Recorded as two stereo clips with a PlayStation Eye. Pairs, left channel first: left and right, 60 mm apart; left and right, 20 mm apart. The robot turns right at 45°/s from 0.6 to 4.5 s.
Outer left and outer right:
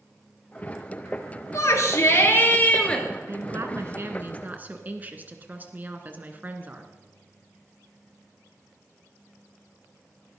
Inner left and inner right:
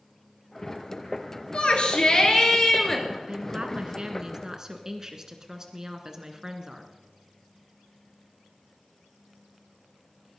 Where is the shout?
95° left, 3 m; by 3.0 s 160° left, 3 m.